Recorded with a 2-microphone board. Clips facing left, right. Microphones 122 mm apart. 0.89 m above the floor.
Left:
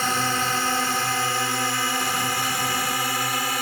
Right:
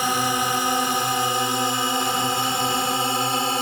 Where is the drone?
15° right (ahead or behind); by 3.6 s 25° right (ahead or behind).